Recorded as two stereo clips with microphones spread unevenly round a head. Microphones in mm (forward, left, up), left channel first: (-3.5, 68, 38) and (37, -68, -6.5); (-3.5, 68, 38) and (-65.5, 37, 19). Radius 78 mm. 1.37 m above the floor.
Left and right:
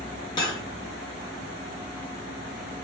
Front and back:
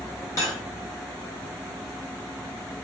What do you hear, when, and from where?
0.4 s cutlery clinking: 55° left, 1.2 m